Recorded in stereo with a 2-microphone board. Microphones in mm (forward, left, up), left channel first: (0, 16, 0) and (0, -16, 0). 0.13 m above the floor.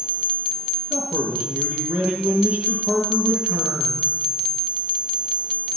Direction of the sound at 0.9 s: 40° right (ahead or behind).